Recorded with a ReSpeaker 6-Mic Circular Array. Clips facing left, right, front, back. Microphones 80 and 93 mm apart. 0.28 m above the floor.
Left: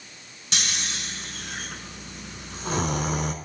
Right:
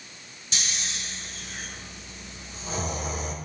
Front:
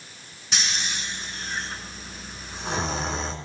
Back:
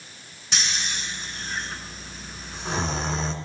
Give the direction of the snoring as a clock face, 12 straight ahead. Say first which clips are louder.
Left 3 dB, even; 9 o'clock.